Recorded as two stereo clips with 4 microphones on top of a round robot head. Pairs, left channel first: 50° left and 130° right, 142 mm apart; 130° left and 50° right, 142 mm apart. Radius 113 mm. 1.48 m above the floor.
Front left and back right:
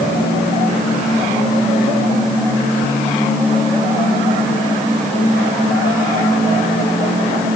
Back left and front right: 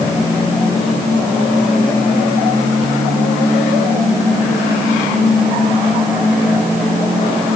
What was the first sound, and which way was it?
Only background noise.